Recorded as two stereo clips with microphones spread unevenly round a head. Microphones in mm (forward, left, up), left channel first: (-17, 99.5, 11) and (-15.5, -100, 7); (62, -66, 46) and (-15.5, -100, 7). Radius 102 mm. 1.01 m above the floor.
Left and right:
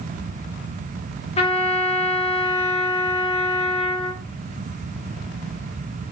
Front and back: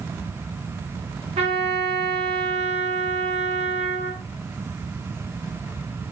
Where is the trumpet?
150° left, 0.9 m.